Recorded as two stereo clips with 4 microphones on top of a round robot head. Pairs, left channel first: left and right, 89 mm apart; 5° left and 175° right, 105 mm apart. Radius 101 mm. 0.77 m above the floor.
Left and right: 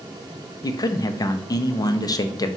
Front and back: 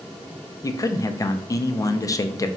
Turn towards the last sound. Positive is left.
turn(degrees=55)